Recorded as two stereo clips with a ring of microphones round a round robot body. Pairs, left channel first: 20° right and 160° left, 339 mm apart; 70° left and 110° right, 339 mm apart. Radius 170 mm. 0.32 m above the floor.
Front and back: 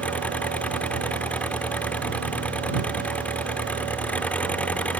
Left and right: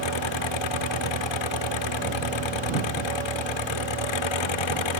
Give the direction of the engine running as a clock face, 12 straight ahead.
10 o'clock.